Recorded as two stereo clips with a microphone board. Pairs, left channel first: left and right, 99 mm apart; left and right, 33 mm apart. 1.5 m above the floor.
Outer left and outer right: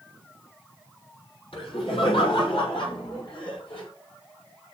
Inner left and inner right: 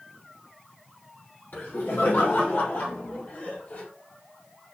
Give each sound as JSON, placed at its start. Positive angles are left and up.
{"t": 1.5, "sound": "laughter", "side_deg": 70, "distance_m": 6.5}